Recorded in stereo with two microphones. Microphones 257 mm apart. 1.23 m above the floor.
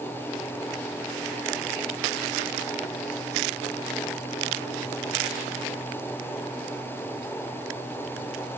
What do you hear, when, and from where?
Only background noise.